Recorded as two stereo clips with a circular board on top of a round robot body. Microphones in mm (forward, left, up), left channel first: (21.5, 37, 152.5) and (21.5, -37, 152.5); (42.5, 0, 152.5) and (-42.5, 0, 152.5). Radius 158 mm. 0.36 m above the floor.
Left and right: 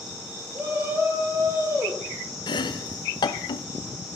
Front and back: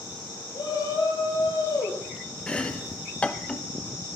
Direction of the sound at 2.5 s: 80° left.